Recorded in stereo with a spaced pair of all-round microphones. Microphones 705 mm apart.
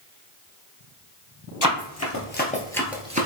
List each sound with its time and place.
1.6 s running footsteps: 30° left (ahead or behind), 1.8 m; by 3.3 s 15° right (ahead or behind), 1.1 m